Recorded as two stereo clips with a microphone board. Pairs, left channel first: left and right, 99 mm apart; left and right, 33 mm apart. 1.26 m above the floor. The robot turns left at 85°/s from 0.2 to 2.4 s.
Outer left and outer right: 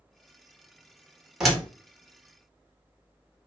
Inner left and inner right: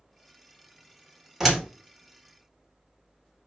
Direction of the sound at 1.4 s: 5° right (ahead or behind).